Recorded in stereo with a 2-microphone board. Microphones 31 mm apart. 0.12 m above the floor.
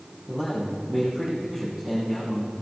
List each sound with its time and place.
0.3 s a man speaking: 5° right (ahead or behind), 4 m